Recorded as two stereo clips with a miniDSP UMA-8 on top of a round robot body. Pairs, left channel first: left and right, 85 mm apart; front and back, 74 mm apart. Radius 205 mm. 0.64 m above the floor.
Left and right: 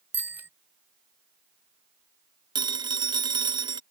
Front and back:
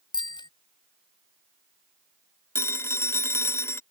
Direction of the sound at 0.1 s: 20° right.